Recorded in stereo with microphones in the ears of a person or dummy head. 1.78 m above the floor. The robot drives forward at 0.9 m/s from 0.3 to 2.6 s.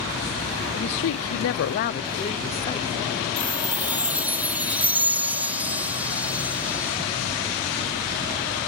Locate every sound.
0.7 s a woman speaking: 50° left (ahead or behind); by 2.9 s 25° left (ahead or behind)
3.4 s a chime: 5° right (ahead or behind)